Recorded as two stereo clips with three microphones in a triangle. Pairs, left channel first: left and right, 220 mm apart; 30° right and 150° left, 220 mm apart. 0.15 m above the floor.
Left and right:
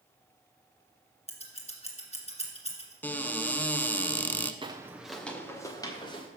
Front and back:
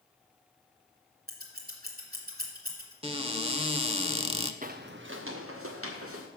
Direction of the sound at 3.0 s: 160° left.